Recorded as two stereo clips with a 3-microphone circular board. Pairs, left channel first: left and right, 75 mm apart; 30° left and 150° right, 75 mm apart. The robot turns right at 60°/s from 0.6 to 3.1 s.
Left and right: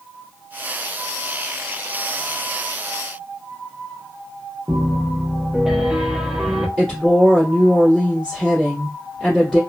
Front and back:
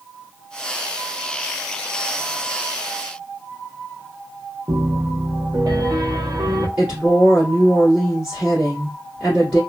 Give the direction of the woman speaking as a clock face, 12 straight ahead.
7 o'clock.